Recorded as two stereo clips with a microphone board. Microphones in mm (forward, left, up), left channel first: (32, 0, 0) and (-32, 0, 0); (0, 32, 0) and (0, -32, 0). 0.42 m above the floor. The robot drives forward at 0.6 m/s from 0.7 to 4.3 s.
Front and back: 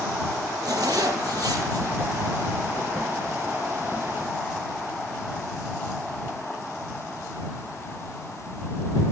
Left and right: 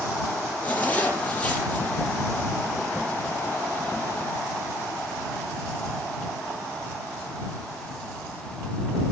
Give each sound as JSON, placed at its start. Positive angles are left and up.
{"t": 0.6, "sound": "a zipper", "azimuth_deg": 155, "distance_m": 5.0}